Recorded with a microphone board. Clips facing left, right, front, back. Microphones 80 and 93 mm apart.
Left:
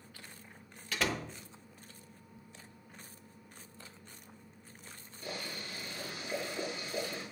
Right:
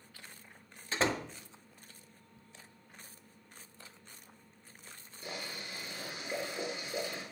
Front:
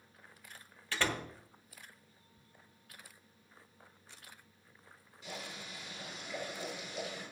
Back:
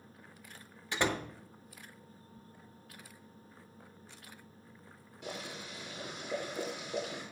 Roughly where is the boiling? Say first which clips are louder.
Left 1 dB, back 3 dB; behind.